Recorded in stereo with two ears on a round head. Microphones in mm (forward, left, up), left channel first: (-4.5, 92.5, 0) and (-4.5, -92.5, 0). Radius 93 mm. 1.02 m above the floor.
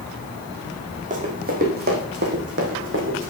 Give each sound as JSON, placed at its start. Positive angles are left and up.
{"t": 1.1, "sound": "running footsteps", "side_deg": -40, "distance_m": 3.5}